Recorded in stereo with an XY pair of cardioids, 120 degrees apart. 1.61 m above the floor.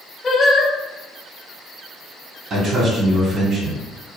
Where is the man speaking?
50° right, 1.4 m.